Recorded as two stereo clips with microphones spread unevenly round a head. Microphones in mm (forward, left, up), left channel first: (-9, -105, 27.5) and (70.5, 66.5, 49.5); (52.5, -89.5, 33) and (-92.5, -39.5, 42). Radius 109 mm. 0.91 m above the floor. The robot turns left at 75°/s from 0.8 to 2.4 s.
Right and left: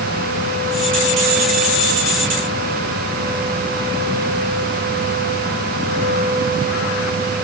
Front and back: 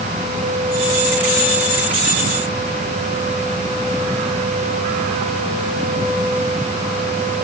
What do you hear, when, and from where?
Only background noise.